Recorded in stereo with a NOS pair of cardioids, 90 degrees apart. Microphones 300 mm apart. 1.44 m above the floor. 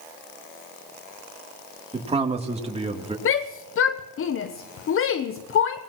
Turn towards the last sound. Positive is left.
turn(degrees=45)